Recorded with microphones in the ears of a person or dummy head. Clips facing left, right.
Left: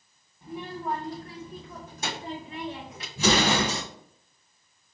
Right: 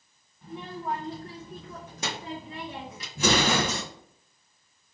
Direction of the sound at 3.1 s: 60° right (ahead or behind).